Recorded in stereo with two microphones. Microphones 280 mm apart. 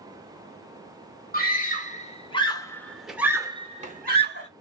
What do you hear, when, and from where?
1.3 s a scream: 30° left (ahead or behind), 1.5 m; by 4.5 s 40° right (ahead or behind), 1.0 m